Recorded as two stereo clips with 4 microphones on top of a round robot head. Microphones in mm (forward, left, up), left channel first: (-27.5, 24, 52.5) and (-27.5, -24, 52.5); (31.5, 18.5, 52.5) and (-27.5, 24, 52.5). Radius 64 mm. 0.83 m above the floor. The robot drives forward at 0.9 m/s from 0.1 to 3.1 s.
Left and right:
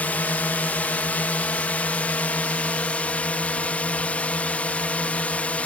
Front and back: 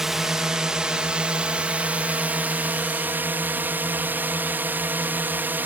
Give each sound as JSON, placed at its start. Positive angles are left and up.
{"t": 0.0, "sound": "a drone", "azimuth_deg": 95}